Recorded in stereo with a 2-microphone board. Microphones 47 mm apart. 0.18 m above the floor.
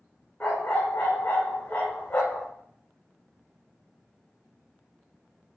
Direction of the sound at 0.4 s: 30° left (ahead or behind).